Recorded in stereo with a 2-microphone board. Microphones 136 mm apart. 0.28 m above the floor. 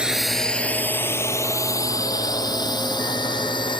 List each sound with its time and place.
0.0 s a drone: 5° right (ahead or behind); by 3.8 s 35° left (ahead or behind)